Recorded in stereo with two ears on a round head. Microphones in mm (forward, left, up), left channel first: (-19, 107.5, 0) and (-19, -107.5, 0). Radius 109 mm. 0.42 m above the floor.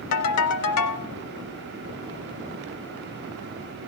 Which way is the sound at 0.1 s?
75° left (ahead or behind).